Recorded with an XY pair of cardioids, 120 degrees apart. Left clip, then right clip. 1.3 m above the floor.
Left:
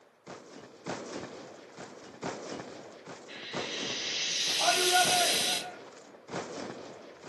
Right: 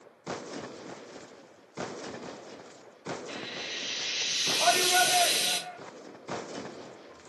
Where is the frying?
60° right, 5 m.